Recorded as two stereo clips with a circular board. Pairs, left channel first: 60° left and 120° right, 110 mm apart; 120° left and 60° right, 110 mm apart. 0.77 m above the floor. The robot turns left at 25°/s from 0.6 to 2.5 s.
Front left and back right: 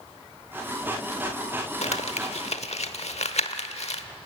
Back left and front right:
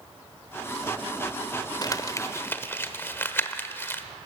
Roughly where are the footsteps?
No footsteps in this recording.